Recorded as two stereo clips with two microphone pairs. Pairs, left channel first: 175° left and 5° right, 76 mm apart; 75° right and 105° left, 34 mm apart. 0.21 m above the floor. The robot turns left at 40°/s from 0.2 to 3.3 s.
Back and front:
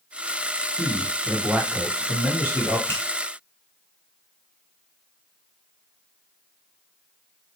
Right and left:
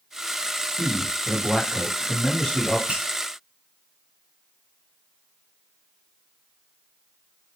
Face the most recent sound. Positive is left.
turn(degrees=105)